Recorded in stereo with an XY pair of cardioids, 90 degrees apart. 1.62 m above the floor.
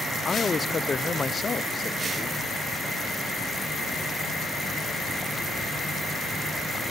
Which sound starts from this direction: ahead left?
A man speaking, at 0.2 s.